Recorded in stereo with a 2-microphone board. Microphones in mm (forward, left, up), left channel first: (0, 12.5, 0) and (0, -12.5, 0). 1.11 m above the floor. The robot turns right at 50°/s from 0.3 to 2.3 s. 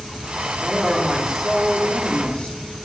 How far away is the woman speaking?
About 2.5 m.